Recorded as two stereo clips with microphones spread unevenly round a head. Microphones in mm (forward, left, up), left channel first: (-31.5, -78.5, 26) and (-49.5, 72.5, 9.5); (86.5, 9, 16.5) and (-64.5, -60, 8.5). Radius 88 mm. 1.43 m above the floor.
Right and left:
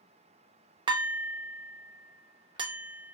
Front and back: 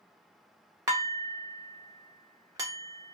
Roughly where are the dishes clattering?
Behind left.